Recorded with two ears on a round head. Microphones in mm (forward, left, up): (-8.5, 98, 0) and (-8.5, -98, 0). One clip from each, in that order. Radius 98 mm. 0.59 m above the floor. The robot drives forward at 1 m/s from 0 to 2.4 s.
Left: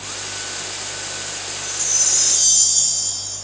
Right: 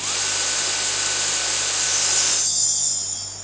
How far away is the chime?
About 6 m.